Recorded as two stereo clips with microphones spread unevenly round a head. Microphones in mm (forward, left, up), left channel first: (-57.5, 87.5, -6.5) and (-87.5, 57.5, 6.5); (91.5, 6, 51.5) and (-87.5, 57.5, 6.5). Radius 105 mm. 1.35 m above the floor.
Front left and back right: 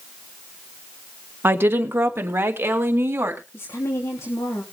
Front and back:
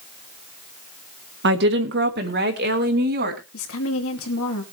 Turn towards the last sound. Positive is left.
turn(degrees=-10)